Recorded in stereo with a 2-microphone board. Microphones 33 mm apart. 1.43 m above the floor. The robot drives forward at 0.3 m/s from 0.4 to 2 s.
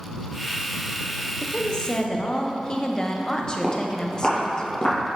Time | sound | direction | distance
1.4 | a woman speaking | 30° left (ahead or behind) | 0.5 m
3.6 | footsteps | 10° right (ahead or behind) | 1.7 m